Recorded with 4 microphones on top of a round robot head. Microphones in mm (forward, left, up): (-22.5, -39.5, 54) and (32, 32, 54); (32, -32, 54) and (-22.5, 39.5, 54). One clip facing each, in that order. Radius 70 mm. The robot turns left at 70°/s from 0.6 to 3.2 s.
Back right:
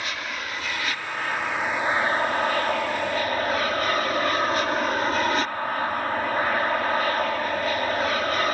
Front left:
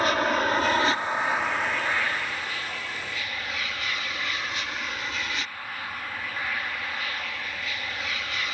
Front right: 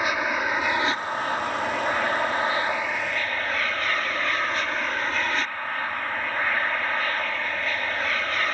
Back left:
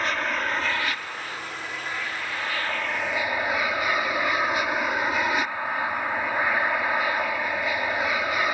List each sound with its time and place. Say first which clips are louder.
0.0 s an aircraft: front left 9 dB, front right 2 dB; 25° left; by 8.6 s 155° right